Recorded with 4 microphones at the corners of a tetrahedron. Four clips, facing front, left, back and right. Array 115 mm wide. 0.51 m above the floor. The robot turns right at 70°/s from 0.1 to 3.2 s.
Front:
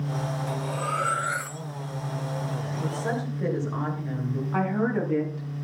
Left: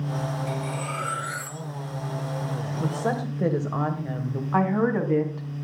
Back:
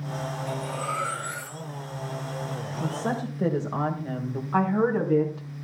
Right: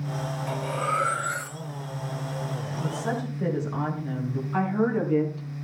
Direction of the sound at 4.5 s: 110° left.